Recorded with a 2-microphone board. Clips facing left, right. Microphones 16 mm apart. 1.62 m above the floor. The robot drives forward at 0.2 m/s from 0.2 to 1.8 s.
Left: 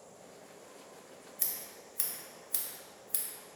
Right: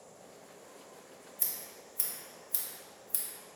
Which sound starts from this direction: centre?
Scissors, at 1.4 s.